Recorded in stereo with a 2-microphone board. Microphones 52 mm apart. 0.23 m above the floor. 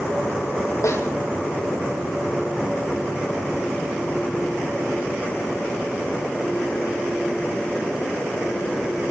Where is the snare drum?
75° left (ahead or behind), 2 m.